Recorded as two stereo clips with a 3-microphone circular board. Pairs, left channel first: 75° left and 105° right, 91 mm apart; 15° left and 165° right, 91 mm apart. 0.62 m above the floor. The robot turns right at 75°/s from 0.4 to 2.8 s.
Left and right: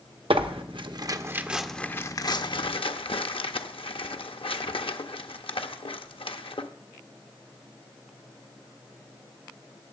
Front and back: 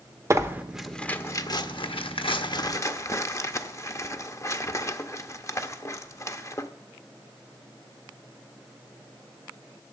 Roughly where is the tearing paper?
Right.